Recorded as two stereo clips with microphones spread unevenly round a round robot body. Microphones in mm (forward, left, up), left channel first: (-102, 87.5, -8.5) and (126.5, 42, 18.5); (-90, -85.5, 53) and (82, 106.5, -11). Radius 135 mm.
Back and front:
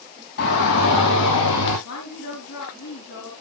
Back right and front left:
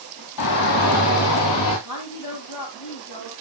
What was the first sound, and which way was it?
A shout, 150° right.